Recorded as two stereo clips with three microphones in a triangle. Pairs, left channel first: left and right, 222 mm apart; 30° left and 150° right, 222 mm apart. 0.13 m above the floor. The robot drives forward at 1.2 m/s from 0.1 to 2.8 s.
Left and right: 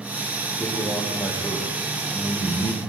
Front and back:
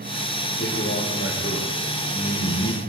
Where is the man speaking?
10° left, 6 m; by 2.8 s 15° left, 3.5 m.